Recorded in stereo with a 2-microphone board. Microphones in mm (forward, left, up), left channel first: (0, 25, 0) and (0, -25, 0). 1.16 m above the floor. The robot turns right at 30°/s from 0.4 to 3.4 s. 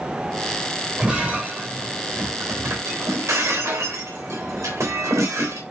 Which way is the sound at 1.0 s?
160° right.